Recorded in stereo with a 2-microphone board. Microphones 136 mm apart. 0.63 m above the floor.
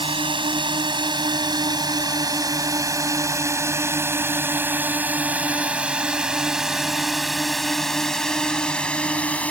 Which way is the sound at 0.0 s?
40° right (ahead or behind).